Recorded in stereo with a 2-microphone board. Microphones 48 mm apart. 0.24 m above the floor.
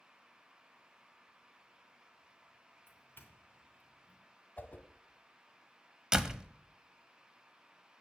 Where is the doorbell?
50° left (ahead or behind), 2.5 m.